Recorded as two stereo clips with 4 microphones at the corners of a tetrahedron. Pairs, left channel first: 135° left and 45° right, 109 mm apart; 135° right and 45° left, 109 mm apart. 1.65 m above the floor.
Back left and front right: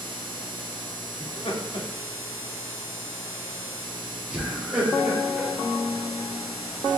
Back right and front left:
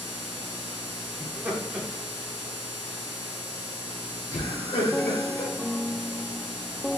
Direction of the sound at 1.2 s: 105° left.